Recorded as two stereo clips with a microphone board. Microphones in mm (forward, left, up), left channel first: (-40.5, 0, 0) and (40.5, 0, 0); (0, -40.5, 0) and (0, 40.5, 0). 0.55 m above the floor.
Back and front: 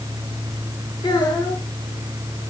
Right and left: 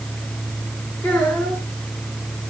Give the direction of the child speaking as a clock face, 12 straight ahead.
5 o'clock.